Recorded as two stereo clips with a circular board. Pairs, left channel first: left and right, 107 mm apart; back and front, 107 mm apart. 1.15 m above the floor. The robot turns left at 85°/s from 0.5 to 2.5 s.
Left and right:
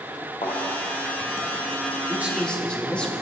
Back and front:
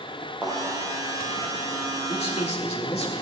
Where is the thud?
80° left, 5 m; by 0.6 s 75° left, 5 m.